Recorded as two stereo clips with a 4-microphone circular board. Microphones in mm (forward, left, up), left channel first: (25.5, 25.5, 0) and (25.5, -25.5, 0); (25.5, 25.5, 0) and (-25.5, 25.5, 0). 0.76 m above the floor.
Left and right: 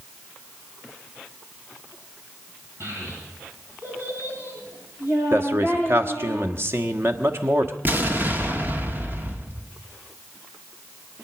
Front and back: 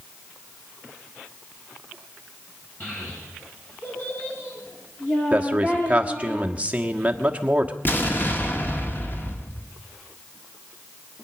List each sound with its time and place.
2.8 s a child speaking: 55° right, 8 m; by 6.3 s 40° right, 8.5 m
5.3 s a man speaking: 115° right, 1.4 m
7.8 s an explosion: 45° right, 1.6 m